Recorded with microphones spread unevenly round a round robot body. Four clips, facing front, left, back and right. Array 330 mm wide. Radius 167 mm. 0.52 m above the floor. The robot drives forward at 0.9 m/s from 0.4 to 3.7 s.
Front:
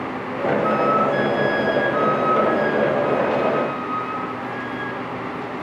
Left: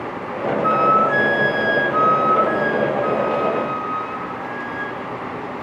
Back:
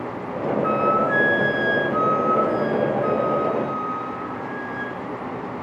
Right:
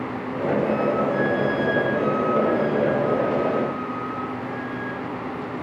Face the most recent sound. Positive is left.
turn(degrees=125)